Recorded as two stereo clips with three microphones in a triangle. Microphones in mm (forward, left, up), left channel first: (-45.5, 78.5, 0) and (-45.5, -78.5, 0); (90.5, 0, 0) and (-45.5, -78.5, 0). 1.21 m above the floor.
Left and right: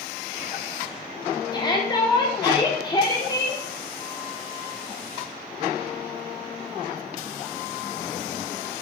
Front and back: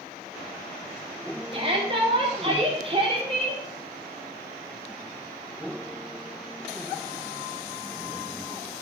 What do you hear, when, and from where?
1.5 s a shout: 155° left, 4.5 m